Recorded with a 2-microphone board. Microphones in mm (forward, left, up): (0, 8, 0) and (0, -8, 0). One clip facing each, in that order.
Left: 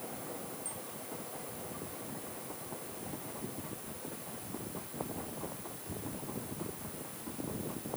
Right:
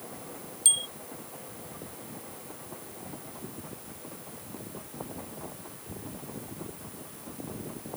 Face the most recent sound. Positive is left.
turn(degrees=-75)  # may be behind; listen again after turning